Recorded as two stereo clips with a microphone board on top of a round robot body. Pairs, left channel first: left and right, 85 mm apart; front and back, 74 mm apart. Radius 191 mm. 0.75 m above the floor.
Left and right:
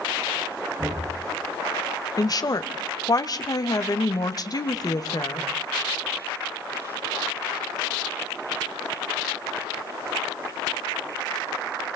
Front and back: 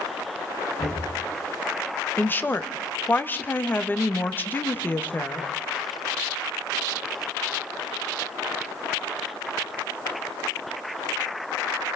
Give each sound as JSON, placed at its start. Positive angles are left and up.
{"t": 0.8, "sound": "knocking", "azimuth_deg": -20, "distance_m": 7.0}
{"t": 2.2, "sound": "a woman speaking", "azimuth_deg": 60, "distance_m": 1.7}